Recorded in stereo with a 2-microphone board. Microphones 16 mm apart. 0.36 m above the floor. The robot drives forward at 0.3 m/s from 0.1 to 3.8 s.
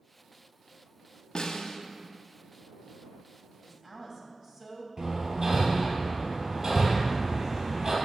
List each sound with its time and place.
1.4 s a snare drum: 70° left (ahead or behind), 0.9 m; by 1.8 s 75° left (ahead or behind), 0.9 m
3.6 s a woman speaking: 25° right (ahead or behind), 1.7 m
5.0 s hammering: 55° right (ahead or behind), 2.5 m